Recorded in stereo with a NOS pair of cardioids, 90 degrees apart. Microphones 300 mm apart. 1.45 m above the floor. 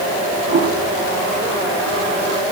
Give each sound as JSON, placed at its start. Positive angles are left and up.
{"t": 0.5, "sound": "a toilet flushing", "azimuth_deg": -60, "distance_m": 3.5}